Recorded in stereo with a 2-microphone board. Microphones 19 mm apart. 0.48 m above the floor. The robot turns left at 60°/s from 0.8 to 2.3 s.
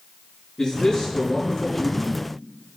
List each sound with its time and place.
0.6 s a man speaking: 150° left, 5 m; by 2.1 s 65° left, 5 m